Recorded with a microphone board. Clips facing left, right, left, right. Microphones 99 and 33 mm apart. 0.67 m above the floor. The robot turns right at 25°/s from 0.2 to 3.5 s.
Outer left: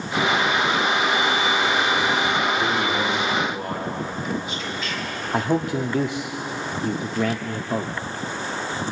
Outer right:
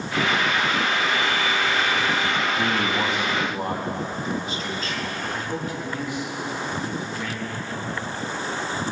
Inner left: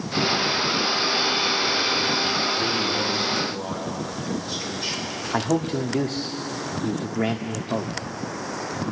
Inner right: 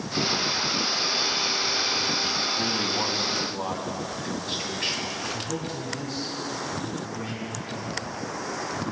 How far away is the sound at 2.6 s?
About 4 m.